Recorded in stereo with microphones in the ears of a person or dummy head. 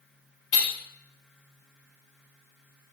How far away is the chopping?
I don't hear chopping.